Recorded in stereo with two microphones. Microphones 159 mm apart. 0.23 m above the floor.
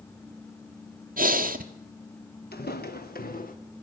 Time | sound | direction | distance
1.2 | breathing | 65° right (ahead or behind) | 1.1 m
2.5 | footsteps | 85° left | 1.9 m